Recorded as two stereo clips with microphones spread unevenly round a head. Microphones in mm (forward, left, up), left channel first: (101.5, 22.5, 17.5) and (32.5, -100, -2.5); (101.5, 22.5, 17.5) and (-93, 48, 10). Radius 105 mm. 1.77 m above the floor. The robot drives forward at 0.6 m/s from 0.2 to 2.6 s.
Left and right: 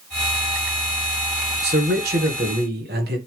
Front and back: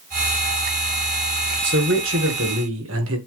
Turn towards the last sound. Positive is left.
turn(degrees=-155)